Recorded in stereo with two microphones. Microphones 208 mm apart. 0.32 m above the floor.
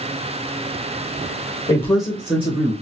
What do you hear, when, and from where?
1.7 s a man speaking: 20° left (ahead or behind), 0.9 m; by 2.7 s 40° right (ahead or behind), 1.2 m